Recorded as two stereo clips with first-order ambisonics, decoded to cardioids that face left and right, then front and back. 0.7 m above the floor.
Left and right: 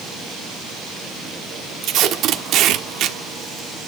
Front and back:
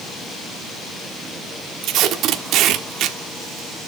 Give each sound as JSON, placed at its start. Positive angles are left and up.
{"t": 1.8, "sound": "tape being pulled", "azimuth_deg": -135, "distance_m": 1.1}